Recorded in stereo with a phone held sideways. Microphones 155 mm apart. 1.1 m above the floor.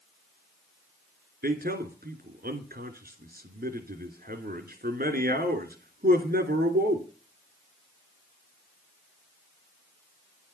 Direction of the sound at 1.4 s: 85° right.